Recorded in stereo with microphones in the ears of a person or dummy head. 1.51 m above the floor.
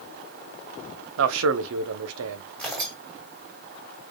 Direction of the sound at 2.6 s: 5° left (ahead or behind).